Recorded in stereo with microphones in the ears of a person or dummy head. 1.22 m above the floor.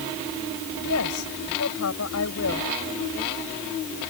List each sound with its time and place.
0.8 s a woman speaking: 75° left (ahead or behind)